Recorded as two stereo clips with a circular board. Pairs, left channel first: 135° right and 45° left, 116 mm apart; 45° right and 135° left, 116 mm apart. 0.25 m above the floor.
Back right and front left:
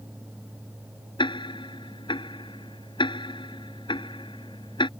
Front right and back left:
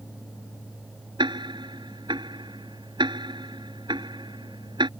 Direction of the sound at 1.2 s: Straight behind.